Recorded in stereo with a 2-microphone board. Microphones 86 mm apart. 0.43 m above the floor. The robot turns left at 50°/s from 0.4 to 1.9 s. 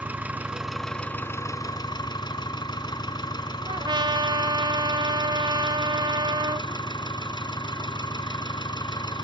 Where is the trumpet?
60° right (ahead or behind), 0.6 m.